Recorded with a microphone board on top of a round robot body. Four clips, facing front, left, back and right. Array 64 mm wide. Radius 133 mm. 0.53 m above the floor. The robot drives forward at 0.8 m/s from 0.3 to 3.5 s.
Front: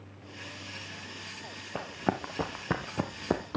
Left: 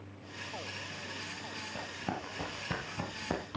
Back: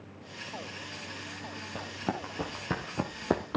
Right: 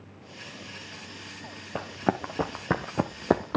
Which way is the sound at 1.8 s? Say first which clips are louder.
Right 12 dB, front 4 dB; 70° right.